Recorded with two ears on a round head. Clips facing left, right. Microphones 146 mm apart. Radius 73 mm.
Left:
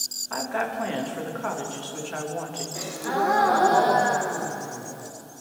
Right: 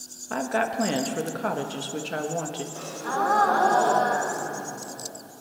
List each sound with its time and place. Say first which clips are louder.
0.3 s a woman speaking: right 2 dB; 40° right (ahead or behind), 1.1 m
2.8 s a gasp: left 3 dB; 15° left (ahead or behind), 0.9 m